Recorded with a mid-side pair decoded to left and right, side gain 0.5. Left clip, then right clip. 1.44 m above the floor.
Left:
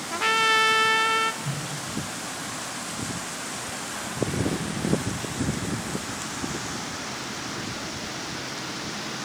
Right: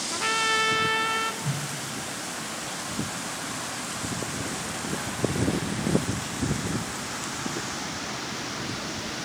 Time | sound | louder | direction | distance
0.1 | a trumpet | left 4 dB | 25° left | 1.1 m
1.4 | a whoosh | even | 10° right | 7 m